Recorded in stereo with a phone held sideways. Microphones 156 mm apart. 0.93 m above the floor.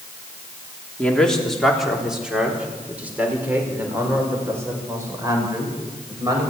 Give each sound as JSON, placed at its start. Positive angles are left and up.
{"t": 1.0, "sound": "a man speaking", "side_deg": 5, "distance_m": 2.5}